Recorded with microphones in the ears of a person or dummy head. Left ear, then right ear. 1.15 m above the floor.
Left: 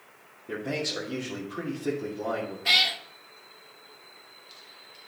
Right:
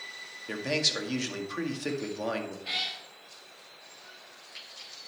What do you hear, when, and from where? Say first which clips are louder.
0.5 s a man speaking: right 3 dB; 65° right (ahead or behind), 1.9 m
2.6 s a cat meowing: left 12 dB; 40° left (ahead or behind), 0.9 m